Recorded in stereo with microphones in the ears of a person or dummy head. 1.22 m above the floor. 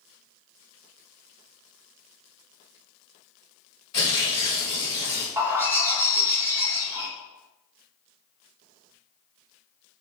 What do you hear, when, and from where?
3.9 s tearing paper: 25° left (ahead or behind), 1.3 m
5.4 s a bird: 10° right (ahead or behind), 0.8 m